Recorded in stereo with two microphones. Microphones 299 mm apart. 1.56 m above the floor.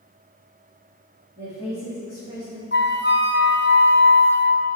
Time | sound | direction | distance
1.4 | a woman speaking | 30° right (ahead or behind) | 3 m
2.7 | a flute | 35° left (ahead or behind) | 0.6 m